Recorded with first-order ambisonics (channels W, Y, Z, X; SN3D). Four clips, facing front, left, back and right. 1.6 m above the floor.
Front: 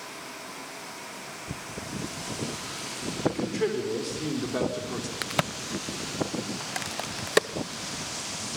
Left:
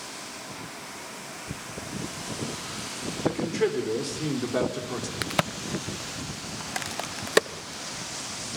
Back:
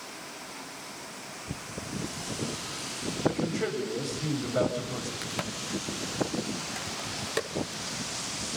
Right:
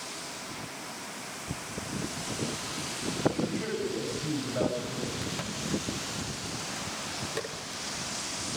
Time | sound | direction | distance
3.2 | a man speaking | 65° left | 6.5 m
5.2 | a crack | 55° left | 0.7 m